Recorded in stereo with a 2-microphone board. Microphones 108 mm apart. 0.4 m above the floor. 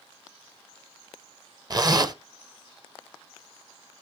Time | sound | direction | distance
1.7 | a zipper | 40° right (ahead or behind) | 0.8 m